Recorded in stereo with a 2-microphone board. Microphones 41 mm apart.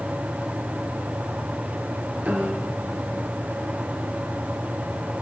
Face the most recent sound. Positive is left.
turn(degrees=-40)  # may be behind; listen again after turning